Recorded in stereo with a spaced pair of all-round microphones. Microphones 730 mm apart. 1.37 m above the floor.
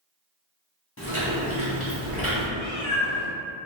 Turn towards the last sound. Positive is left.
turn(degrees=45)  # may be behind; listen again after turning